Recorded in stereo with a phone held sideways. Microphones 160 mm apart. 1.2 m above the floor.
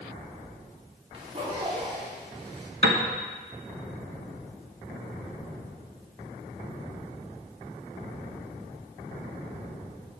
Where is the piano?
75° right (ahead or behind), 1.2 m.